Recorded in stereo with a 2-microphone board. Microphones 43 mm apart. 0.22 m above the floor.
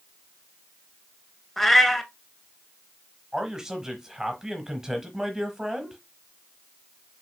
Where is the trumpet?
No trumpet in this recording.